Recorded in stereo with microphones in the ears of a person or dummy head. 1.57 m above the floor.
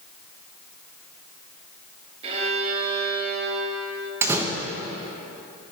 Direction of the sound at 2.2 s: 30° right (ahead or behind).